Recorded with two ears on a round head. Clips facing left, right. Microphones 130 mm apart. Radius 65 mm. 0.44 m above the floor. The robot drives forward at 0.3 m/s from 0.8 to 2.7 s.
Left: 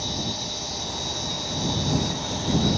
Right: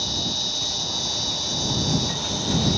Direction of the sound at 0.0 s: 60° right (ahead or behind).